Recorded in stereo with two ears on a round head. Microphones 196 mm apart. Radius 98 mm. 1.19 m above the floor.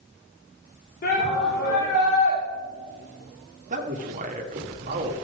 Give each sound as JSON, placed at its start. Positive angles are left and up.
{"t": 1.0, "sound": "a shout", "side_deg": 45, "distance_m": 3.0}
{"t": 3.7, "sound": "a man speaking", "side_deg": -35, "distance_m": 1.8}